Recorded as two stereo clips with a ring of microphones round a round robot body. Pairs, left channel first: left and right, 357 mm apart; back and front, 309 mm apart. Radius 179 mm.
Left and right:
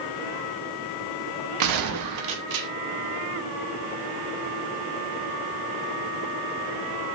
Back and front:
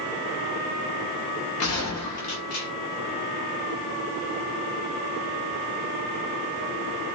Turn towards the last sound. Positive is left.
turn(degrees=-130)